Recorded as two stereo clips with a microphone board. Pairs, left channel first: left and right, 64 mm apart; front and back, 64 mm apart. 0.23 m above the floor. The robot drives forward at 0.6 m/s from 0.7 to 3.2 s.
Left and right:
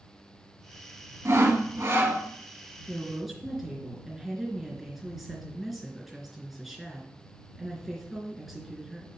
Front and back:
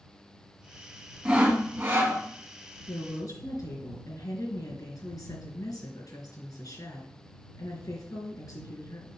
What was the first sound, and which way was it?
Sawing, 110° right.